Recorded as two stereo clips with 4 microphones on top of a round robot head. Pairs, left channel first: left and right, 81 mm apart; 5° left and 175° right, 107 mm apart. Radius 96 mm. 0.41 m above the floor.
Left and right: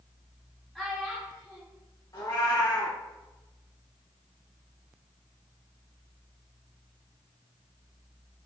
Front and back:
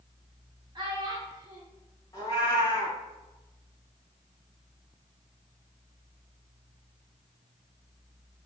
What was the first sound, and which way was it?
A child speaking, 175° left.